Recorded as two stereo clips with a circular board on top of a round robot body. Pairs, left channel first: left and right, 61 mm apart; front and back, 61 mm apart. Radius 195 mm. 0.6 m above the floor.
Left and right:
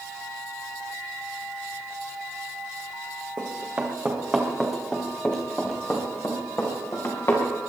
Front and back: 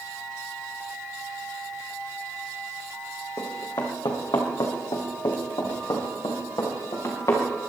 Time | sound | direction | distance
3.4 | running footsteps | 35° right | 2.5 m